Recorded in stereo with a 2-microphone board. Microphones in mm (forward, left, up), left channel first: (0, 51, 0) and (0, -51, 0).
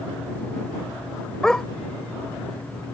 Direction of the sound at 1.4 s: 5° left (ahead or behind).